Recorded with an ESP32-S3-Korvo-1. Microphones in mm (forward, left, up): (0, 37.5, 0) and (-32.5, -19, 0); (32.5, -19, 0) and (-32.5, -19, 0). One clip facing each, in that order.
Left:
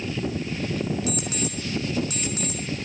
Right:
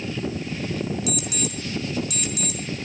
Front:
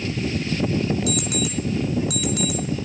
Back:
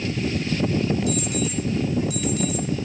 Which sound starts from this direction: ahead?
An alarm clock, at 1.1 s.